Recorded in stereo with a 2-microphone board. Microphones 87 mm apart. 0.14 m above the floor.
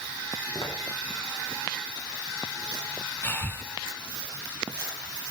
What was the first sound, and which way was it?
Footsteps, 60° left (ahead or behind).